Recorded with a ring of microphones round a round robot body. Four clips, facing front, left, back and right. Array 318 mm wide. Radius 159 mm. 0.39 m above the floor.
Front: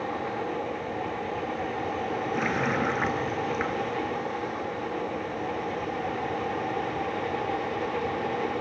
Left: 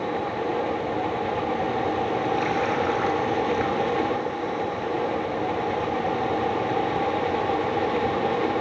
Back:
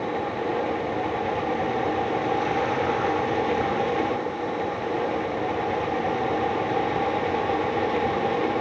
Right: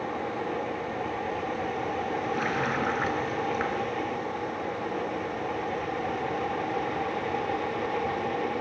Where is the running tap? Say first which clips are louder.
Left 5 dB, back 3 dB; 10° right, 4.5 m.